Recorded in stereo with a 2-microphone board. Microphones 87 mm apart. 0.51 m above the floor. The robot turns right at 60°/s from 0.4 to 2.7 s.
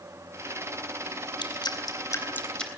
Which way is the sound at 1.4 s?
65° left (ahead or behind).